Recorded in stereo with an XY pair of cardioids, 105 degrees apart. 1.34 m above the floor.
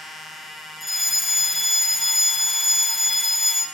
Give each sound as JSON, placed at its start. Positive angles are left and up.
{"t": 0.8, "sound": "a fire alarm", "azimuth_deg": 10, "distance_m": 2.5}